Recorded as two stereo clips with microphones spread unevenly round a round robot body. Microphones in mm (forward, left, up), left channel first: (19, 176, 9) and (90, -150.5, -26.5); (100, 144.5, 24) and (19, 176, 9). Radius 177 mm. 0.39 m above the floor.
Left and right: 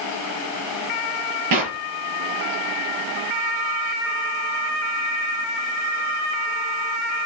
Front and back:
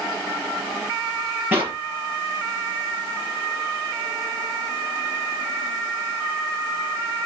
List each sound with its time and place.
1.5 s a clap: 115° right, 7 m